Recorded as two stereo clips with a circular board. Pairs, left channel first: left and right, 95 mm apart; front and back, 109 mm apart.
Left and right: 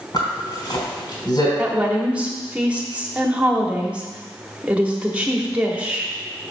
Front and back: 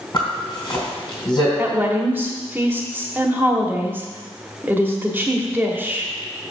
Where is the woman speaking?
145° right, 1.4 m.